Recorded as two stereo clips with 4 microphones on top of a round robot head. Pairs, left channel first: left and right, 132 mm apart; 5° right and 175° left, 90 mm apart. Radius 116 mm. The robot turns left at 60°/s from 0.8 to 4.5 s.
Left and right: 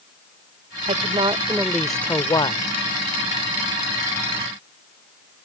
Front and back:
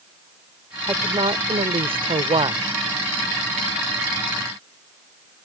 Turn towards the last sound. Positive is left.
turn(degrees=25)